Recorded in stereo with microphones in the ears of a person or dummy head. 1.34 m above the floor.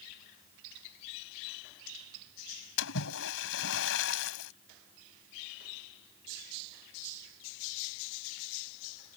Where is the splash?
75° left (ahead or behind).